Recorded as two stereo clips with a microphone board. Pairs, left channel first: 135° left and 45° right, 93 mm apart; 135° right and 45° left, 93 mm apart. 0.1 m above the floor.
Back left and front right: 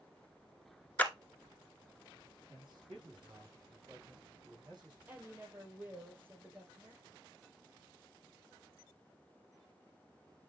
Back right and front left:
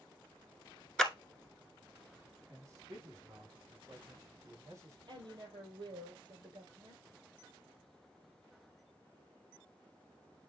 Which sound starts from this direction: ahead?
A man speaking, at 2.5 s.